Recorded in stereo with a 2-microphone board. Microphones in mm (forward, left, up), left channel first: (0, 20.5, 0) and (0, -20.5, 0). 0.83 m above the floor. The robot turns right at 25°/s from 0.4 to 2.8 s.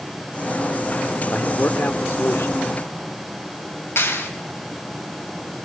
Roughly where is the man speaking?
Ahead left.